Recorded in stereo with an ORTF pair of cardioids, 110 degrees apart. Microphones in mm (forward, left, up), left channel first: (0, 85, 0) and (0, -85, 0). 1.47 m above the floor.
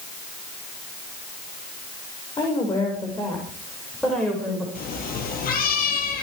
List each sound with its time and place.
2.4 s a woman speaking: 25° left, 6 m; by 4.7 s straight ahead, 6.5 m
4.8 s a cat meowing: 60° left, 6 m